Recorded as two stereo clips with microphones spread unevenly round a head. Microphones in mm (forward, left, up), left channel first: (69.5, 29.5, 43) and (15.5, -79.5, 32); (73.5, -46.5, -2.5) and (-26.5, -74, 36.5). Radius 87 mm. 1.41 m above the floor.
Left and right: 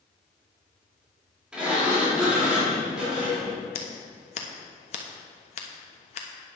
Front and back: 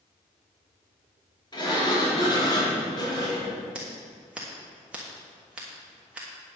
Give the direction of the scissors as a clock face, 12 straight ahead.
8 o'clock.